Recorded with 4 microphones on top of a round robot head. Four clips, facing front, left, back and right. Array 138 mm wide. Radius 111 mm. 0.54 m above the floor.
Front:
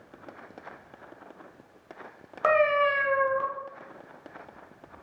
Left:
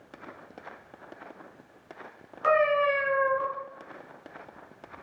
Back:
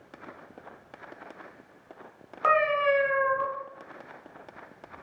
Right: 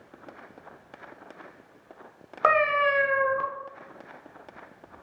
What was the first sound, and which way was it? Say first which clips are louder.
A cat meowing: right 1 dB, front 1 dB; 80° right.